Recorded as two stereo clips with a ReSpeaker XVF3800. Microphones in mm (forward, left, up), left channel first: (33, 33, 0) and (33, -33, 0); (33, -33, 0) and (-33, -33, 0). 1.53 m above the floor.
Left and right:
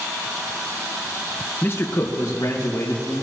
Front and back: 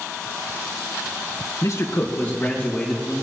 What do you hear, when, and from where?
1.6 s a man speaking: 30° left, 1.1 m; by 3.2 s 80° left, 2.5 m